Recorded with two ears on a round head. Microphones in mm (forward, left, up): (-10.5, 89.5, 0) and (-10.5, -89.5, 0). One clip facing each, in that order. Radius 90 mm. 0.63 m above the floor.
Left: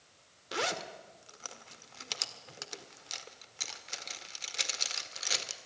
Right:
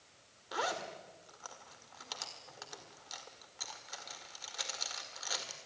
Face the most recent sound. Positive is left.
turn(degrees=30)  # may be behind; listen again after turning